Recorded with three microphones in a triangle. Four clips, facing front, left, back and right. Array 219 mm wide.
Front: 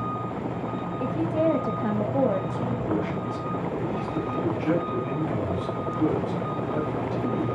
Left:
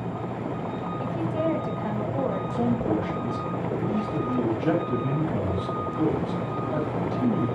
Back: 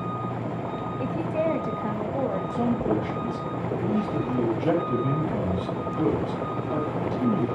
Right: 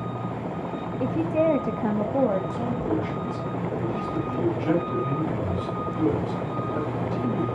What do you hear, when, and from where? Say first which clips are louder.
1.0 s a woman speaking: right 5 dB, front 2 dB; 85° right, 1.1 m; by 2.4 s 60° right, 2 m
2.5 s a man speaking: left 2 dB, back 3 dB; 150° left, 4.5 m